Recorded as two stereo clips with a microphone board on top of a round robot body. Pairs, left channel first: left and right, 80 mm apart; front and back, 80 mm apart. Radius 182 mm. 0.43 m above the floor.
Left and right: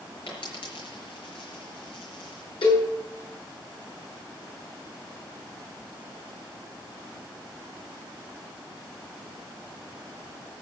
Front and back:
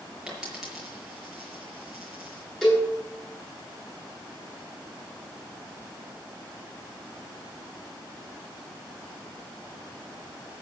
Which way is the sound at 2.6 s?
85° left.